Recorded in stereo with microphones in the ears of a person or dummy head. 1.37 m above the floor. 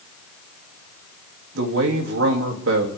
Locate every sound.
1.6 s a man speaking: 70° right (ahead or behind), 3 m